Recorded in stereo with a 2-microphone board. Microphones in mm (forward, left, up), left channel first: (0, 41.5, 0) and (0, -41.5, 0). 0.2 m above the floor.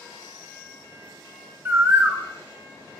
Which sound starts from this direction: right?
A bird, at 1.6 s.